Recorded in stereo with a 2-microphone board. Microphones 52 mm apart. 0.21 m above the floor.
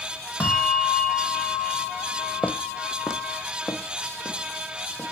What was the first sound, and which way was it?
A bell, 25° left (ahead or behind).